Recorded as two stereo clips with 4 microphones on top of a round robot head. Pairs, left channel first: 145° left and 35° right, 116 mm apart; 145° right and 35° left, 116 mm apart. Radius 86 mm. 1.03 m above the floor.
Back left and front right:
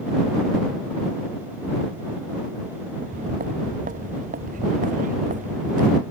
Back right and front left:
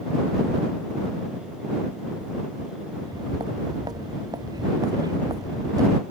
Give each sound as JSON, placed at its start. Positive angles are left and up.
{"t": 3.0, "sound": "footsteps", "azimuth_deg": -25}